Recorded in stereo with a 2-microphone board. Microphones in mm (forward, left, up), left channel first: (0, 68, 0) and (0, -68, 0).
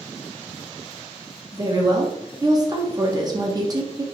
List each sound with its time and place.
1.5 s a woman speaking: 30° right (ahead or behind), 0.7 m